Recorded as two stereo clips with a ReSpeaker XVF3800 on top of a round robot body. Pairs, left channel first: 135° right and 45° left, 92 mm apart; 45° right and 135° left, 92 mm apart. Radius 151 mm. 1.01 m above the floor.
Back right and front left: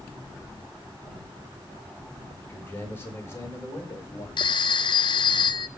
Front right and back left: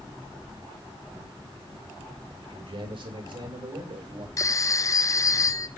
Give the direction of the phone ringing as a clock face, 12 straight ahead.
3 o'clock.